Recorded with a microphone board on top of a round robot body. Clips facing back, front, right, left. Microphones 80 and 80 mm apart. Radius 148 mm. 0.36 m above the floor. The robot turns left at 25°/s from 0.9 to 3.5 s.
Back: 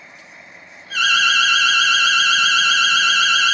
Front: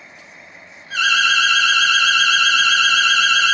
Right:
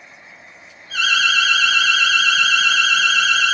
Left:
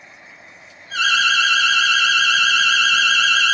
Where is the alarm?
50° left, 1.6 m; by 3.5 s 15° right, 1.6 m.